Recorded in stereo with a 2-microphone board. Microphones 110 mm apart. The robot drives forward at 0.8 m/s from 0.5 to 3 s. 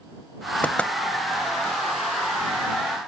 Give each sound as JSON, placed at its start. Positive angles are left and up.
{"t": 0.6, "sound": "knocking", "side_deg": 15}